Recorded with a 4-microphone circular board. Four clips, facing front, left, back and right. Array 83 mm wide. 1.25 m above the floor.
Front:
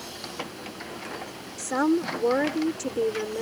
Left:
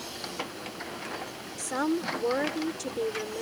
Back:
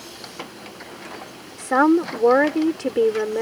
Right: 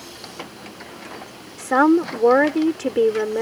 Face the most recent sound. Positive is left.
turn(degrees=-130)